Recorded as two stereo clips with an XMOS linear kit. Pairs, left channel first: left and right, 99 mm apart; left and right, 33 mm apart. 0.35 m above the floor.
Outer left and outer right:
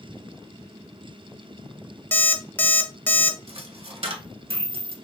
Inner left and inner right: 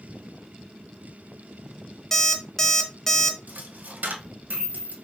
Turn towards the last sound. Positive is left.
turn(degrees=-70)  # may be behind; listen again after turning